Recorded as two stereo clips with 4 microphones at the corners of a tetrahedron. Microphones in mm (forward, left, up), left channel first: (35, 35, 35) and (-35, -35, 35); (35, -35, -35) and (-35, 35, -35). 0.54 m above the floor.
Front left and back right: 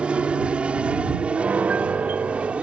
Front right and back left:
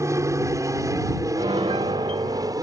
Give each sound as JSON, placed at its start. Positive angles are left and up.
{"t": 0.0, "sound": "an aircraft", "azimuth_deg": 155}
{"t": 1.4, "sound": "a piano", "azimuth_deg": 150}